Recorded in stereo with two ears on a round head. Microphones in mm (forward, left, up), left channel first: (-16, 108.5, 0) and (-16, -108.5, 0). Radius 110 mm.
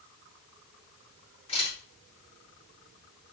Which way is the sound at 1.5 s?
25° left (ahead or behind).